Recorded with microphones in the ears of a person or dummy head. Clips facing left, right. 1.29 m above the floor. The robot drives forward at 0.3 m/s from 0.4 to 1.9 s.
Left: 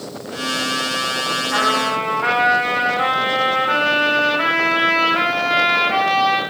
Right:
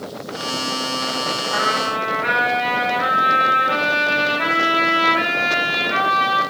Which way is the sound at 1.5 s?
80° left.